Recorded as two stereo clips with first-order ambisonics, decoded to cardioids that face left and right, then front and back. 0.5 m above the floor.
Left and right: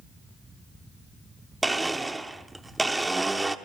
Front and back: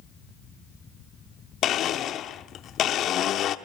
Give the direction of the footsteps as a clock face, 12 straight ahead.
No footsteps in this recording.